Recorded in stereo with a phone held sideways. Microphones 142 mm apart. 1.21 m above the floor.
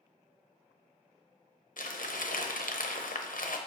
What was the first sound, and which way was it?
Crumpling, 75° left (ahead or behind).